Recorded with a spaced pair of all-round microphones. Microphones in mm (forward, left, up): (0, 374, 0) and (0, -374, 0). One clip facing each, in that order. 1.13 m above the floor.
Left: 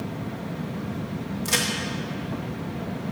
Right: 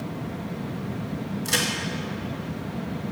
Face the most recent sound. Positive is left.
turn(degrees=40)  # may be behind; listen again after turning